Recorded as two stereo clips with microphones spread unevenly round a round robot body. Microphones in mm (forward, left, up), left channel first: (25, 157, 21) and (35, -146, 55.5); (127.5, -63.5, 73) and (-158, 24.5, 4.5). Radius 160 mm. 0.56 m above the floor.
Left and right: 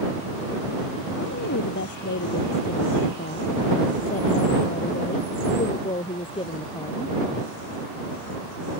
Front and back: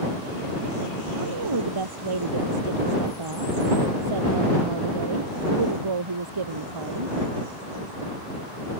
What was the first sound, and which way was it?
A woman speaking, 150° left.